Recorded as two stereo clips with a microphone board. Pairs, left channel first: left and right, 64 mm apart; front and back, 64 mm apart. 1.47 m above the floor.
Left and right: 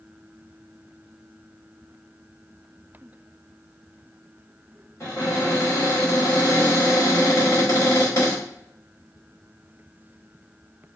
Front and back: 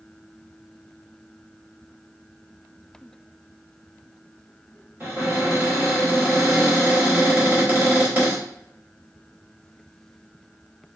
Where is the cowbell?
No cowbell in this recording.